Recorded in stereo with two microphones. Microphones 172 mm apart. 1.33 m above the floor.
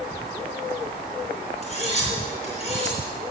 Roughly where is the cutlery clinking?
Left.